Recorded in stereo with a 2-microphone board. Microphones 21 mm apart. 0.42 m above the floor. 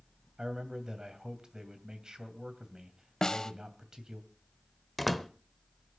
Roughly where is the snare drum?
Left.